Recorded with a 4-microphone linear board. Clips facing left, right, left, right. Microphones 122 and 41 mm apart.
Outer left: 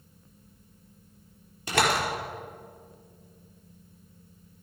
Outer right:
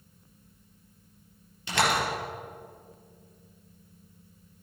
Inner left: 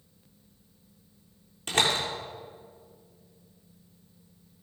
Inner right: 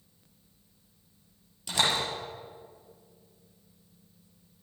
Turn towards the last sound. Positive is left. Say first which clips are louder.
# outer left 1 dB, inner left 2 dB
turn(degrees=45)  # may be behind; listen again after turning